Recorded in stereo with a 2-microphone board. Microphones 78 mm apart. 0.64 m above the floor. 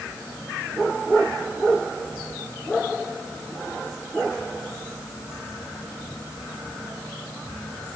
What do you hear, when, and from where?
Only background noise.